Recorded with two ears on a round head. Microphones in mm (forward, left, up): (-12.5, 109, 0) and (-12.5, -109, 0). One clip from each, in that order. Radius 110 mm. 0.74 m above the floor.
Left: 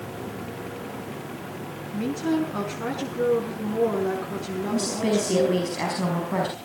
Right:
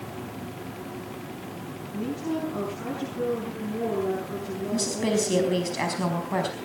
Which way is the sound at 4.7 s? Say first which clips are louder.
Left 1 dB; 20° right (ahead or behind).